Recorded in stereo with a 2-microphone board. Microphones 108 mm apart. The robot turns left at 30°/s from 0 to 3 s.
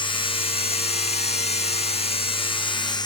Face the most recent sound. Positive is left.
turn(degrees=40)